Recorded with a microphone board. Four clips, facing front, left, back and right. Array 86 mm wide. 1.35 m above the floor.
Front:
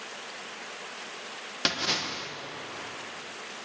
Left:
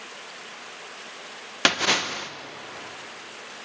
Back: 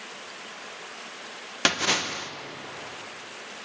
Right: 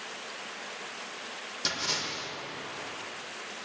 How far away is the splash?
About 0.9 m.